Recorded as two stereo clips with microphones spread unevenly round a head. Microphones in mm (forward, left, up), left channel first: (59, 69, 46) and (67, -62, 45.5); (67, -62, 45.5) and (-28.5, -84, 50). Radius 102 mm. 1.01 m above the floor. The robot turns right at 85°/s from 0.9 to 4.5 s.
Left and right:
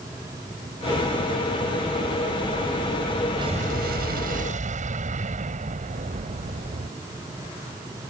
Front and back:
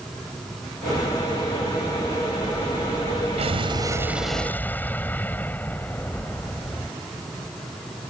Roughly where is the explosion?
Behind right.